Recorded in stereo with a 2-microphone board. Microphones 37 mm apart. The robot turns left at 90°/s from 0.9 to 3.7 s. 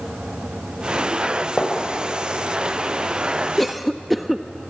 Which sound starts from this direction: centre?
A cough, at 3.6 s.